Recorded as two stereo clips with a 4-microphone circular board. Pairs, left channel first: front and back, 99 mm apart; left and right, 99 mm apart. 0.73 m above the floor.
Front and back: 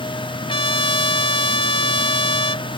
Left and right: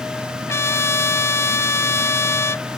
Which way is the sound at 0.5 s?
25° left.